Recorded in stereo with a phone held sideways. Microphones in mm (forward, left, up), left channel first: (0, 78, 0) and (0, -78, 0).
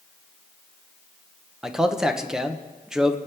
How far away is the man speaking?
About 0.9 m.